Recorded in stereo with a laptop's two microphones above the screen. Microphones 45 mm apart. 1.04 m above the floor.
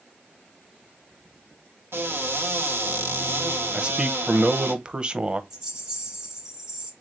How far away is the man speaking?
About 0.7 m.